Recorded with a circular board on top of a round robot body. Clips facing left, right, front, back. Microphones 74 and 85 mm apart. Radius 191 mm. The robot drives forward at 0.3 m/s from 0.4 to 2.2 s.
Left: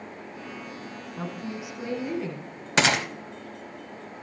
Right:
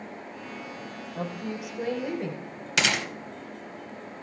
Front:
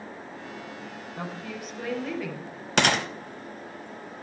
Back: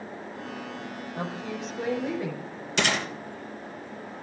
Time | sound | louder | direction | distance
1.1 | a woman speaking | right 2 dB, back 3 dB | 110° right | 4 m
2.8 | a gunshot | left 4 dB, front 3 dB | 35° left | 0.8 m